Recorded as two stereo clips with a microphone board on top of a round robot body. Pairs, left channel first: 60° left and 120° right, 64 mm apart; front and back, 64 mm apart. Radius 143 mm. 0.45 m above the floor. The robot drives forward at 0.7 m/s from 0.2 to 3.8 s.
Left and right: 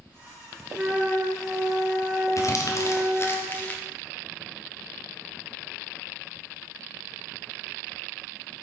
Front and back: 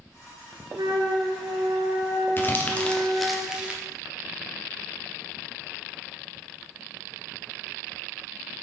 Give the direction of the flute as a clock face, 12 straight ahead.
6 o'clock.